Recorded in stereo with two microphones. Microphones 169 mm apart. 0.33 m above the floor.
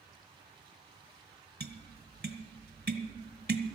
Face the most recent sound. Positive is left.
turn(degrees=-70)  # may be behind; listen again after turning